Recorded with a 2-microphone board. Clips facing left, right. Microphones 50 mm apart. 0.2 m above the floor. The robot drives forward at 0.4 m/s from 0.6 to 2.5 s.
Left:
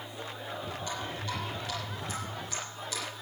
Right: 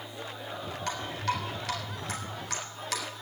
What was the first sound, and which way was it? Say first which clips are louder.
Dripping: right 7 dB; 70° right (ahead or behind).